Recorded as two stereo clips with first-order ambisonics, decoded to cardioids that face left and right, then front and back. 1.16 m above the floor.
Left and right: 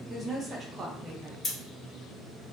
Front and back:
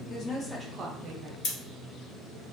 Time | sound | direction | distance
0.1 | a woman speaking | 15° right | 0.6 m
1.4 | scissors | 10° left | 1.0 m